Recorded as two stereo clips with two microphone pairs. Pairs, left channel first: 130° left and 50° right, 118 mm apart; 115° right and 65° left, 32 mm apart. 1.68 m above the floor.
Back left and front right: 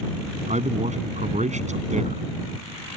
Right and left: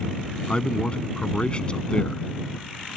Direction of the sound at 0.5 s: 55° right.